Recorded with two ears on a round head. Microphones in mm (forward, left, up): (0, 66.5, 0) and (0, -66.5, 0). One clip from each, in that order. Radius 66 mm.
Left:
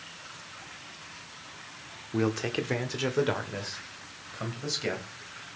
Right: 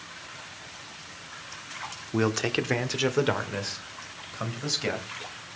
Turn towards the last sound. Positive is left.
turn(degrees=-10)  # may be behind; listen again after turning